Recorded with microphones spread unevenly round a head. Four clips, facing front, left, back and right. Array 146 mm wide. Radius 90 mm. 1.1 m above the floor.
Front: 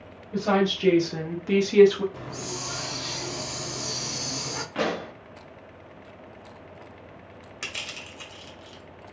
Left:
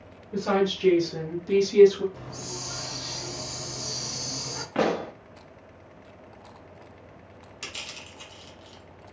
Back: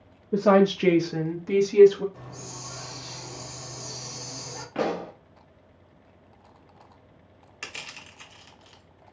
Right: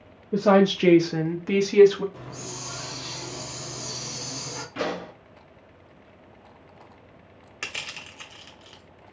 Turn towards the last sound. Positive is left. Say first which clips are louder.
# right 4 dB, front 2 dB
turn(degrees=-80)